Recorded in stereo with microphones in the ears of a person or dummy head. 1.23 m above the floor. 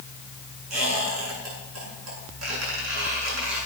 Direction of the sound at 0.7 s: 80° right.